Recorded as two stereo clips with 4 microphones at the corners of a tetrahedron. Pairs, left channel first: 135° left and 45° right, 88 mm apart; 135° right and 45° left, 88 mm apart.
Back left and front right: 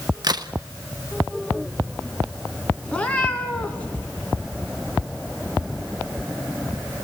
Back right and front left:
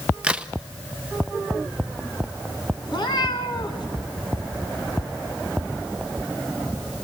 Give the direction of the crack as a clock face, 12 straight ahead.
1 o'clock.